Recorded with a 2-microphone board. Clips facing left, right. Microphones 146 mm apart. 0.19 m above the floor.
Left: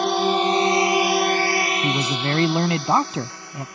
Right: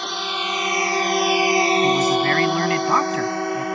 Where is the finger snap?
I don't hear a finger snap.